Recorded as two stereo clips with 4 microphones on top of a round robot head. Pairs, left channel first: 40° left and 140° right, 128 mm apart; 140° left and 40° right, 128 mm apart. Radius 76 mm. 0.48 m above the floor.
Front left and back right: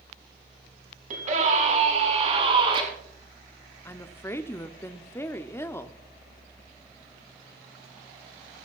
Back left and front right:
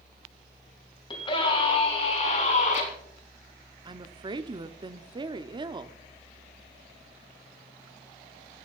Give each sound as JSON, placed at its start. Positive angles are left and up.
{"t": 1.1, "sound": "a scream", "azimuth_deg": -170, "distance_m": 5.0}
{"t": 3.9, "sound": "a woman speaking", "azimuth_deg": -15, "distance_m": 0.8}